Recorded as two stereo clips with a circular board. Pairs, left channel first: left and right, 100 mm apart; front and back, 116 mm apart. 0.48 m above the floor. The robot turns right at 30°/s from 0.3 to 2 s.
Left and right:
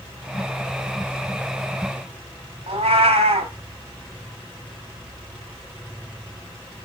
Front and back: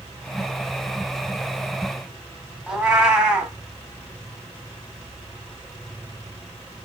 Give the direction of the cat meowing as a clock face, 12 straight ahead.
3 o'clock.